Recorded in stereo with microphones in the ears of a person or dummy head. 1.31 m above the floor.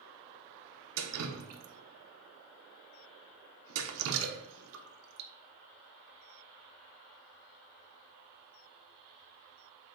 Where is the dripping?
75° right (ahead or behind), 0.7 m.